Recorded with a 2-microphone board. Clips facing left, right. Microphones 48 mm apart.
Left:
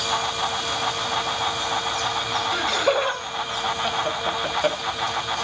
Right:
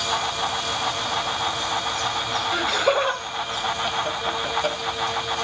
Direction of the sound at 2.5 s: 5° right (ahead or behind).